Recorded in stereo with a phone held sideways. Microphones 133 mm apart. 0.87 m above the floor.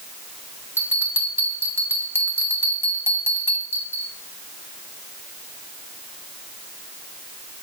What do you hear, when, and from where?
0.8 s a bell: 15° right (ahead or behind), 2.5 m